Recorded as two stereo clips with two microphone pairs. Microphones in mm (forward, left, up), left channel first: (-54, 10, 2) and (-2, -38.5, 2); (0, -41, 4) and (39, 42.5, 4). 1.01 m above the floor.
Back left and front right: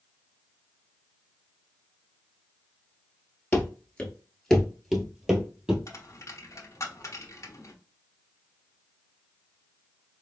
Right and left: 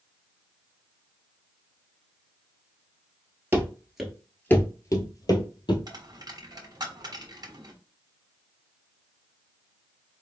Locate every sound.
3.5 s running footsteps: 100° left, 1.1 m; by 5.8 s 115° right, 1.7 m
5.9 s a dropped coin: 100° left, 1.0 m